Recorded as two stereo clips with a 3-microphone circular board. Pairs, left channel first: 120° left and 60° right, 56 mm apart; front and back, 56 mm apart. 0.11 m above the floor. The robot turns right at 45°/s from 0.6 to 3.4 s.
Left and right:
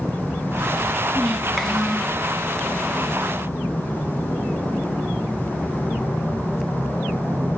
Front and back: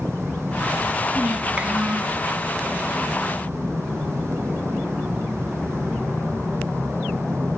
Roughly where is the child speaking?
Behind.